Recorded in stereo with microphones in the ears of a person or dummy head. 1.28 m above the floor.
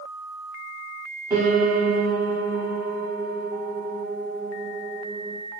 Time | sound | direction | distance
1.3 | a piano | 15° right (ahead or behind) | 2.5 m